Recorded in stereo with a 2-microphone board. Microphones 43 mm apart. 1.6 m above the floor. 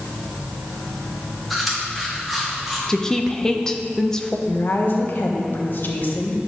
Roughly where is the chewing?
Centre.